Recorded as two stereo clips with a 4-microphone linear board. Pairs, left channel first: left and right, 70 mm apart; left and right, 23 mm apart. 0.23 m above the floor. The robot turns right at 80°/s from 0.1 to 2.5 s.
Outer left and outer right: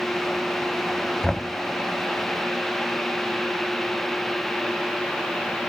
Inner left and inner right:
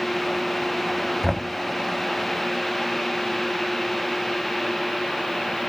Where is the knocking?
10° left (ahead or behind), 0.6 m; by 1.5 s 15° left (ahead or behind), 0.6 m.